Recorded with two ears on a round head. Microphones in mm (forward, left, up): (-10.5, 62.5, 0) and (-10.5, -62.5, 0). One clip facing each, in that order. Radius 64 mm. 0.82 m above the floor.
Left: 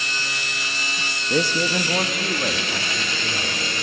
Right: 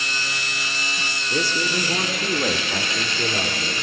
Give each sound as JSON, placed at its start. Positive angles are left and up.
{"t": 1.3, "sound": "a man speaking", "side_deg": 45, "distance_m": 1.2}